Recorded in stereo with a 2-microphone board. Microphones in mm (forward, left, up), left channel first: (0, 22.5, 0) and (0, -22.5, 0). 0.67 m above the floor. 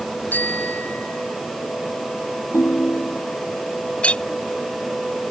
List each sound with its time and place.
0.3 s a bicycle bell: 40° left (ahead or behind); by 1.4 s 45° left (ahead or behind)
2.5 s a ringtone: 55° left (ahead or behind)
4.0 s a clink: 25° left (ahead or behind)